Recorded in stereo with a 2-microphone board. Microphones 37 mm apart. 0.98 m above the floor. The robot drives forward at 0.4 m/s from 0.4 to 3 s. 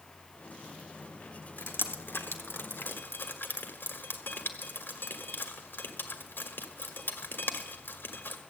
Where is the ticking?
No ticking in this recording.